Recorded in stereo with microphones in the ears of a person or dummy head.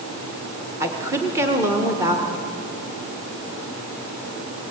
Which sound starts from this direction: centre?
A woman speaking, at 0.8 s.